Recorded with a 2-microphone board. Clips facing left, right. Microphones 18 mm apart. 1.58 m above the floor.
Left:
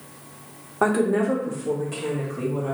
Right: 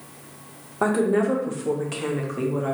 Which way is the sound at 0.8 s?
15° left (ahead or behind).